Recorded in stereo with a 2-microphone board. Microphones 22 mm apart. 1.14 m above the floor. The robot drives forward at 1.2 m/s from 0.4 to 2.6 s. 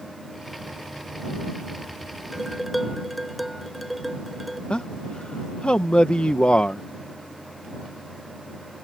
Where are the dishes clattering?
Centre (ahead or behind).